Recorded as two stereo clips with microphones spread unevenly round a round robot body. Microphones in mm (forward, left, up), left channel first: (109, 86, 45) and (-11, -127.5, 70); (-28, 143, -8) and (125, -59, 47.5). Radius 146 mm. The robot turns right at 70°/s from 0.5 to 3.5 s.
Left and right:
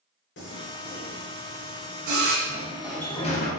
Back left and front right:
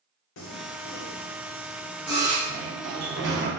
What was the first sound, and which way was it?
Singing, 110° left.